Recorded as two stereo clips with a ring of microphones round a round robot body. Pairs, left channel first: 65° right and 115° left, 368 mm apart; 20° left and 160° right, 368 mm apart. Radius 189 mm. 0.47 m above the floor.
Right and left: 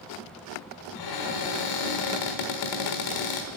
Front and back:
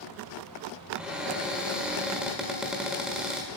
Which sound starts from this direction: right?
A cupboard door, at 0.9 s.